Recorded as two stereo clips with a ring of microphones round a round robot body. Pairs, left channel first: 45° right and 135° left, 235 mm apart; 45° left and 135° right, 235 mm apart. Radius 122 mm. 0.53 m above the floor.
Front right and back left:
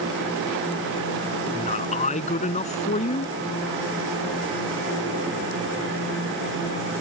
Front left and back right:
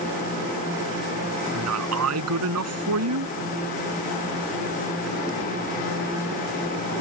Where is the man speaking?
110° right.